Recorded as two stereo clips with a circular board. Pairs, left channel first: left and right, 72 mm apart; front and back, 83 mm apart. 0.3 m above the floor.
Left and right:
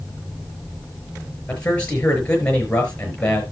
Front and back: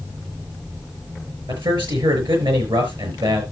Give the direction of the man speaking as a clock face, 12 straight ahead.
7 o'clock.